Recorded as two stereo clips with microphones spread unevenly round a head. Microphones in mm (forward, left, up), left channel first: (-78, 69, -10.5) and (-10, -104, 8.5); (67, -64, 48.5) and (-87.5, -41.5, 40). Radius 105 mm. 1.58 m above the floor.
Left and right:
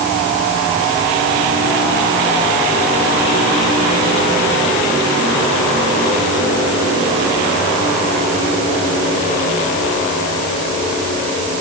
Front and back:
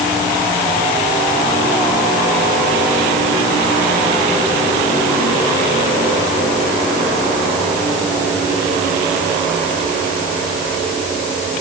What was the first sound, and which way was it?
Only background noise.